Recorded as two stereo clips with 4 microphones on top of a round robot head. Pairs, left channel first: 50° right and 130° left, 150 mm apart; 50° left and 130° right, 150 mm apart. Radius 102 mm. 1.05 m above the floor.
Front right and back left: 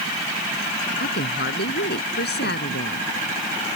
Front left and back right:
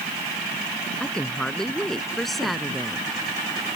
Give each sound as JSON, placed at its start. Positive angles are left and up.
{"t": 1.0, "sound": "a woman speaking", "azimuth_deg": -35}